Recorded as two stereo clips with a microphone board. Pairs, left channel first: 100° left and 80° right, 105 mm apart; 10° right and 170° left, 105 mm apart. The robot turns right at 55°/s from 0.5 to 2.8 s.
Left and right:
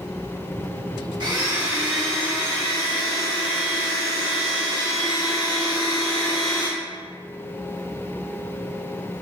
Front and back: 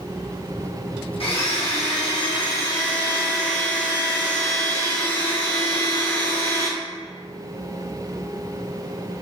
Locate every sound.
1.2 s a blender: 40° right, 1.1 m; by 6.7 s 50° left, 1.1 m